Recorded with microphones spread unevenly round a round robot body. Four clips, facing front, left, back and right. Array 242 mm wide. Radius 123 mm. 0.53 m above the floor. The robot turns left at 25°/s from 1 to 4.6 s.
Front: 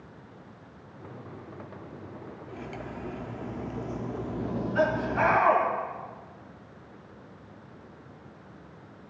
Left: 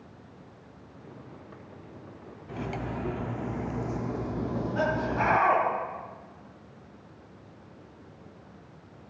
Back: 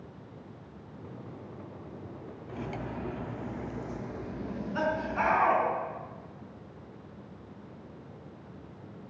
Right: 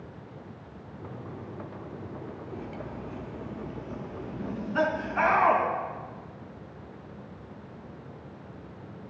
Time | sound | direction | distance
2.5 | cutlery clinking | 100° left | 0.6 m
4.4 | laughter | 90° right | 5.5 m